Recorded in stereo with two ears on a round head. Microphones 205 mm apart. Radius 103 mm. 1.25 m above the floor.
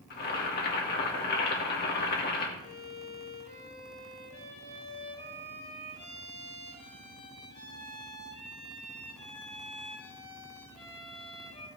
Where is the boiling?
45° left (ahead or behind), 2.0 m.